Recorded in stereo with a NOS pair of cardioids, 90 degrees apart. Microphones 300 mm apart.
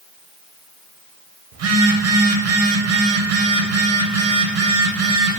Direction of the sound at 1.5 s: 55° right.